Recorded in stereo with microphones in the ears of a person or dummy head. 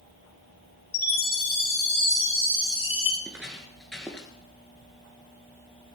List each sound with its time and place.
0.9 s a chime: 40° left (ahead or behind), 8 m
3.2 s footsteps: 10° right (ahead or behind), 1.5 m; by 4.3 s 10° left (ahead or behind), 1.7 m